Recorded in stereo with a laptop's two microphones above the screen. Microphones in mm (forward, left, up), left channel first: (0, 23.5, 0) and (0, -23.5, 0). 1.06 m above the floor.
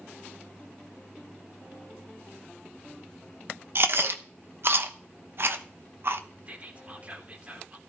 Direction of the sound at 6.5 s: 30° right (ahead or behind).